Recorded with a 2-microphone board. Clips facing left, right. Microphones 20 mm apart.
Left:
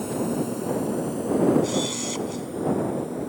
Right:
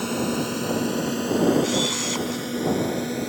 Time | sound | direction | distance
0.0 | a drone | 50° right (ahead or behind) | ?
1.6 | a camera shutter | 25° right (ahead or behind) | ?